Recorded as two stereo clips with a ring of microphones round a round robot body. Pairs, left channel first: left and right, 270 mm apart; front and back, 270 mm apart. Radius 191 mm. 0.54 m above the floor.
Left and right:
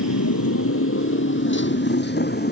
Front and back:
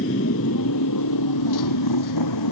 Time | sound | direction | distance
0.0 | a motorcycle | 65° left | ?